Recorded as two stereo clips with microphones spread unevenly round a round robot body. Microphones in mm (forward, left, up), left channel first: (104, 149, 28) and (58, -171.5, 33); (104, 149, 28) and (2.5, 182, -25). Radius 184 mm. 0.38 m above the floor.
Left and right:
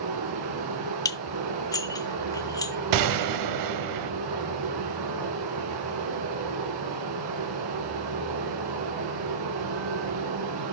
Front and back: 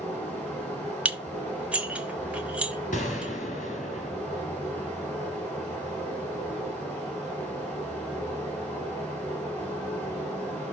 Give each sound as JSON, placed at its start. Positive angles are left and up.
{"t": 0.0, "sound": "running water", "azimuth_deg": -110, "distance_m": 3.0}
{"t": 1.1, "sound": "dishes clattering", "azimuth_deg": 155, "distance_m": 0.8}
{"t": 2.9, "sound": "a gunshot", "azimuth_deg": -75, "distance_m": 0.8}